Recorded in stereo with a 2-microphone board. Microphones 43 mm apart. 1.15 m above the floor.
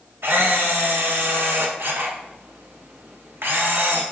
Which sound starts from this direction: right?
A camera shutter, at 0.2 s.